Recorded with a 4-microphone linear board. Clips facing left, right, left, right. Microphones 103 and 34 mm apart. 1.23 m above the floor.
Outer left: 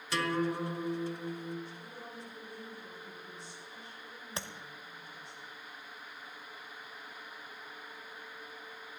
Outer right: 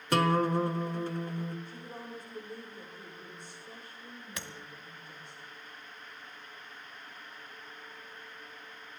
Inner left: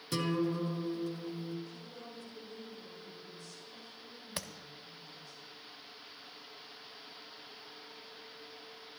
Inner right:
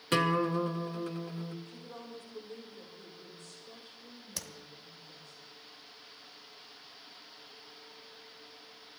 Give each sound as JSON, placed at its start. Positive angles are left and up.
{"t": 0.1, "sound": "a guitar", "side_deg": -50, "distance_m": 1.0}
{"t": 1.6, "sound": "a woman speaking", "side_deg": -55, "distance_m": 5.0}
{"t": 4.4, "sound": "tapping", "side_deg": 30, "distance_m": 1.1}